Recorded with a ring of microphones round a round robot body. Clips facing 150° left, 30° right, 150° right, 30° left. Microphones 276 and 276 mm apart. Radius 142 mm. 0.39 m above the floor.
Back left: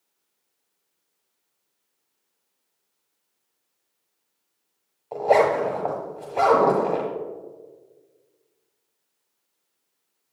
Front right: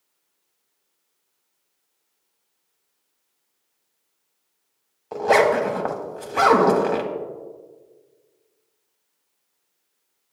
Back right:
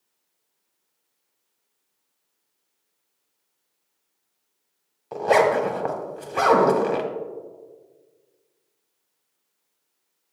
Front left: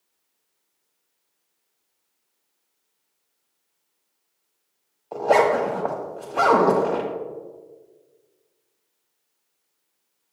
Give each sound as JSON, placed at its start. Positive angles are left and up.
{"t": 5.1, "sound": "a zipper", "azimuth_deg": -90, "distance_m": 1.0}